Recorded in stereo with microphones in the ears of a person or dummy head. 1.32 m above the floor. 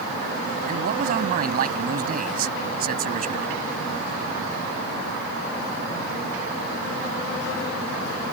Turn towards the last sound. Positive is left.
turn(degrees=-60)  # may be behind; listen again after turning